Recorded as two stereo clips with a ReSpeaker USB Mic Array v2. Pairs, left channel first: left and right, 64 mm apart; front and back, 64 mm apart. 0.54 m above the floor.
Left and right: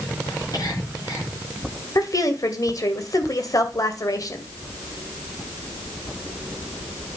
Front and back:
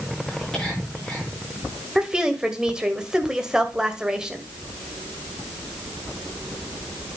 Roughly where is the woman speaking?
Left.